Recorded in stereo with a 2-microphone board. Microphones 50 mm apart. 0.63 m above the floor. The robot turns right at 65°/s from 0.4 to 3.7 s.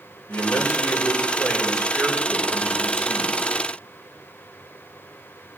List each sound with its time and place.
0.3 s a man speaking: 80° left, 3.5 m; by 3.4 s 85° right, 3.5 m